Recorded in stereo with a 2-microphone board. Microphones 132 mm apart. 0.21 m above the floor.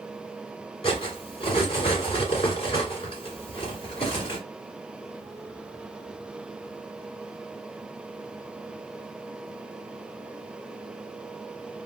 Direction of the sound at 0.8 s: 40° left (ahead or behind).